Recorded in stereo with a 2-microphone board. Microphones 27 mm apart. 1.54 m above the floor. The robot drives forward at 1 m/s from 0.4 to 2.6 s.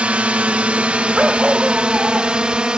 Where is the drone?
60° right (ahead or behind); by 2.8 s 40° right (ahead or behind).